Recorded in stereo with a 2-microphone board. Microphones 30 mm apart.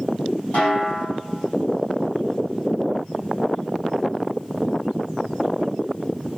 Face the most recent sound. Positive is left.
turn(degrees=65)  # may be behind; listen again after turning